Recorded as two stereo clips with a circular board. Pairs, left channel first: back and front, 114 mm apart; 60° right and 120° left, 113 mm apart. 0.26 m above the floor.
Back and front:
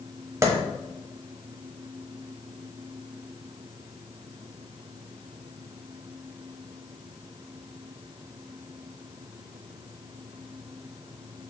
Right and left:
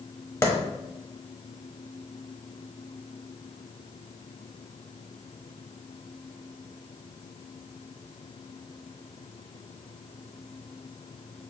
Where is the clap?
25° right, 1.0 m.